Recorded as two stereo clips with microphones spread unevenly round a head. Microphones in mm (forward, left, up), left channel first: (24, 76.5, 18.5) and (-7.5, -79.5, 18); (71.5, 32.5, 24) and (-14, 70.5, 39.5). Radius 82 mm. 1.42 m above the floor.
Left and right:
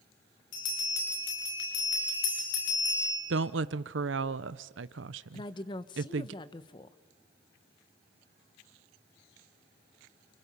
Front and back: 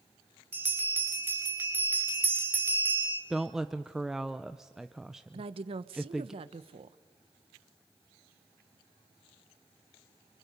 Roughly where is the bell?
Left.